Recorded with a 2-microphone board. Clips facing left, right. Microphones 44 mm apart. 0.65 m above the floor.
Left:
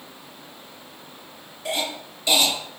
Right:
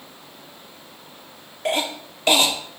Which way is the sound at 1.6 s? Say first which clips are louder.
Right 4 dB; 55° right (ahead or behind).